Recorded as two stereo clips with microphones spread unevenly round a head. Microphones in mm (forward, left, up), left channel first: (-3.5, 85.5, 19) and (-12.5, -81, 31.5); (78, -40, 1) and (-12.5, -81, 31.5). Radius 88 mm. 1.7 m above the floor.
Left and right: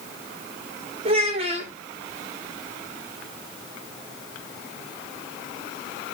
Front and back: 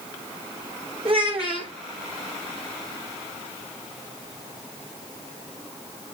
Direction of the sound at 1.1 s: 150° right.